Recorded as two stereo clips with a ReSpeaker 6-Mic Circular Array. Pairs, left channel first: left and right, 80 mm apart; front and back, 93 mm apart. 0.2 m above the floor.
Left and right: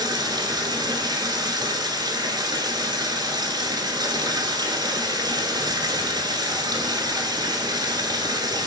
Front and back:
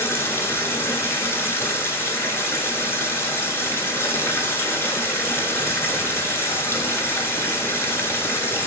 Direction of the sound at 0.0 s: 60° right.